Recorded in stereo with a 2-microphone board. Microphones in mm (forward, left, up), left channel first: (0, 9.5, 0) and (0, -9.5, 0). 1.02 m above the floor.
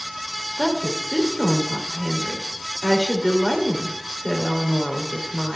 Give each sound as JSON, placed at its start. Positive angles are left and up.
{"t": 0.6, "sound": "a woman speaking", "side_deg": 0, "distance_m": 3.0}